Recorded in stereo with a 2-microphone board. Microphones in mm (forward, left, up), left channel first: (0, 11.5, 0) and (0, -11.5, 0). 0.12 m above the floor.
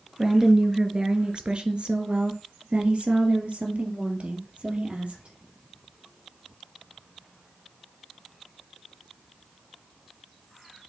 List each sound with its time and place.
0.2 s a woman speaking: 20° right (ahead or behind), 1.7 m; by 5.3 s 55° right (ahead or behind), 3.5 m